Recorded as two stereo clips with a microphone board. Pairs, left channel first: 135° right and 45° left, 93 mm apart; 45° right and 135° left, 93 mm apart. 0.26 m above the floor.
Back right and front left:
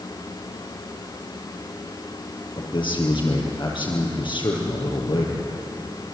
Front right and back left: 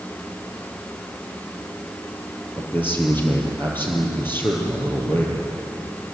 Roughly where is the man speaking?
Behind right.